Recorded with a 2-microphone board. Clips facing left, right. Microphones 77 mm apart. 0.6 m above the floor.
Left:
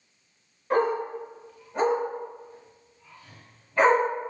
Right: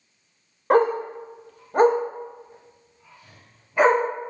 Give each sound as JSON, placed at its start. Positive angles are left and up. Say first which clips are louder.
{"t": 0.7, "sound": "a dog barking", "louder": "right 5 dB", "side_deg": -70, "distance_m": 0.7}